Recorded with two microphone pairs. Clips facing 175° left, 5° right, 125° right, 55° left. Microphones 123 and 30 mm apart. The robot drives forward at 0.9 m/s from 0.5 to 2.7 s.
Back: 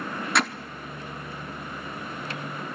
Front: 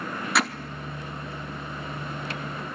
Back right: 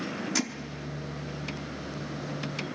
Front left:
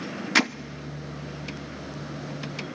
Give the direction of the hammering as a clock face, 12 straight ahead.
9 o'clock.